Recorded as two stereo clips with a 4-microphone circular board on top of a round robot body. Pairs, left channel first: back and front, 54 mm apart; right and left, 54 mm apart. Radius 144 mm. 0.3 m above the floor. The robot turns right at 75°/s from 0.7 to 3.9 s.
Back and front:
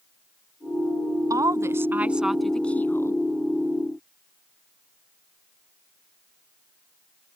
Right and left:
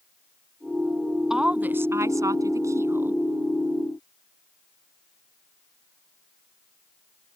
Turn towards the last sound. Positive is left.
turn(degrees=-155)